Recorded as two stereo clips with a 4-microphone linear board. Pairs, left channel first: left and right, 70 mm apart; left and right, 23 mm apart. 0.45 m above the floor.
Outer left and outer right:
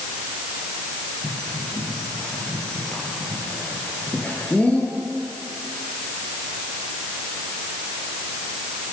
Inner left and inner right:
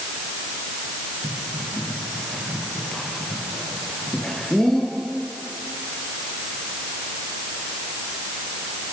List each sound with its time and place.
1.2 s a bird: 20° left (ahead or behind), 8 m